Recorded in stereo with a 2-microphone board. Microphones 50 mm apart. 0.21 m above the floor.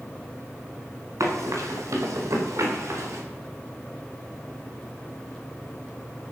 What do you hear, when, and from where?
1.2 s running footsteps: 80° right, 4.5 m; by 3.2 s 65° right (ahead or behind), 5 m